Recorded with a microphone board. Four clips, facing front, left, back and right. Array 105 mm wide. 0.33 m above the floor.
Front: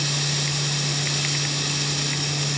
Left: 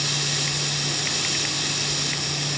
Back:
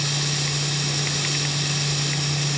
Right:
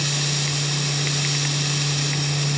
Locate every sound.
Only background noise.